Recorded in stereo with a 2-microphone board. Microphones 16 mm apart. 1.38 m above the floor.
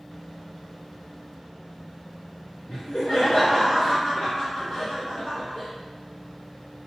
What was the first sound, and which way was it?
Laughter, 60° left (ahead or behind).